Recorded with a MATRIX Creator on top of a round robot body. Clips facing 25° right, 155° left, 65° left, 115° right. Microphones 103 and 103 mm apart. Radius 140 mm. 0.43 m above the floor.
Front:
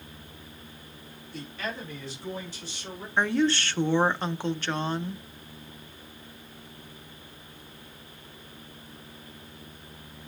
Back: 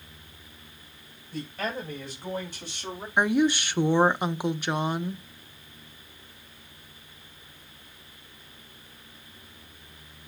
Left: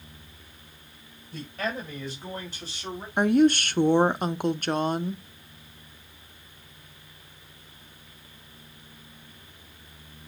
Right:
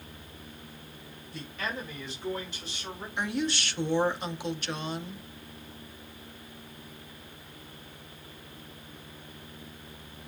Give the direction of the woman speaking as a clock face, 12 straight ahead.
9 o'clock.